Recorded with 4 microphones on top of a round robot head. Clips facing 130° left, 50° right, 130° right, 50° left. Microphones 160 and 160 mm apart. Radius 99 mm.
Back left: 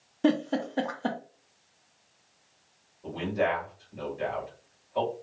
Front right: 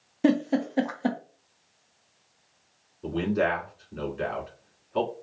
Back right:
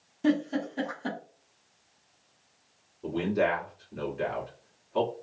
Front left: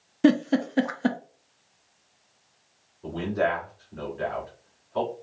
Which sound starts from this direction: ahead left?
A giggle, at 0.2 s.